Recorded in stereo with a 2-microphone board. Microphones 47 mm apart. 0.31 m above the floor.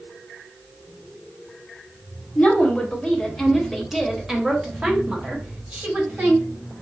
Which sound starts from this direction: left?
A woman speaking, at 2.4 s.